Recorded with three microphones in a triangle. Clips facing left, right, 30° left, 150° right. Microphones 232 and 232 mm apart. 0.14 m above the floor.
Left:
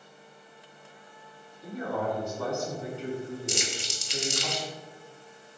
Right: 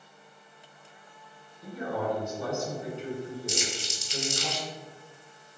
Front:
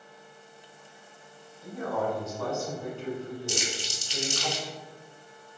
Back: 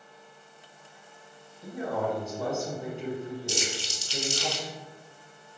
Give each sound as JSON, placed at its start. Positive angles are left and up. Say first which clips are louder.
{"t": 1.6, "sound": "a man speaking", "louder": "even, even", "azimuth_deg": -115, "distance_m": 1.6}
{"t": 3.5, "sound": "crumpling", "louder": "even, even", "azimuth_deg": 100, "distance_m": 0.9}